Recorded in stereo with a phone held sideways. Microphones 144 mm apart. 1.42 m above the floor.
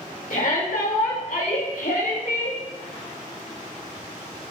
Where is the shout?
90° left, 5.5 m; by 2.6 s 85° left, 7 m.